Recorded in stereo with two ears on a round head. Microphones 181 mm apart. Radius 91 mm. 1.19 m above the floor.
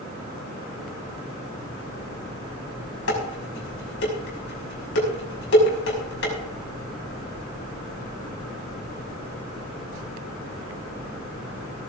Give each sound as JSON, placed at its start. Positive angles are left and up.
{"t": 3.1, "sound": "dishes clattering", "side_deg": 65, "distance_m": 5.5}